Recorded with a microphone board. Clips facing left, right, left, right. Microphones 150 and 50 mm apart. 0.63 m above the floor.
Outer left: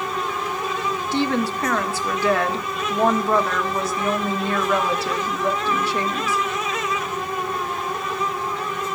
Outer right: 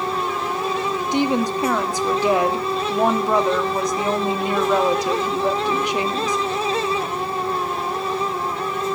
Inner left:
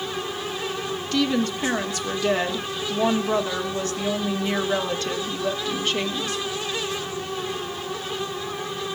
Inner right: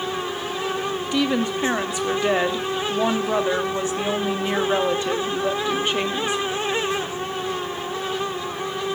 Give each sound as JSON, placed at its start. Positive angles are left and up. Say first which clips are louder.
{"t": 1.1, "sound": "a woman speaking", "louder": "outer right 2 dB, even", "side_deg": -15, "distance_m": 1.1}